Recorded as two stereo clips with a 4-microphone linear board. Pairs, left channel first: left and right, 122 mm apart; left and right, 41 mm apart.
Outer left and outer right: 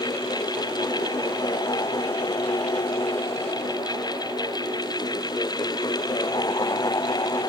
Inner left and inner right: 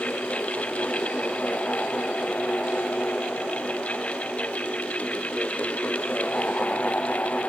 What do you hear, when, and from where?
Only background noise.